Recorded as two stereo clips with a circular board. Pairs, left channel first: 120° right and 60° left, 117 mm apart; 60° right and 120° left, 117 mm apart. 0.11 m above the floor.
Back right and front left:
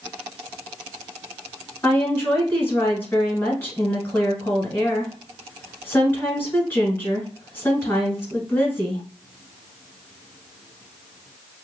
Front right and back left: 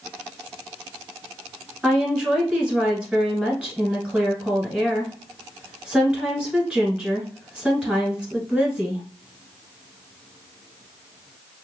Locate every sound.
1.8 s a woman speaking: 170° right, 1.3 m